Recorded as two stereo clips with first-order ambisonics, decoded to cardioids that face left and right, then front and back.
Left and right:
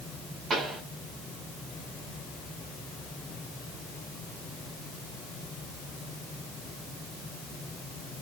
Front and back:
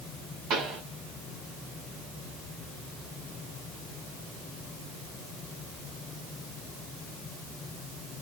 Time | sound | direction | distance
0.5 | a pop | 155° right | 1.9 m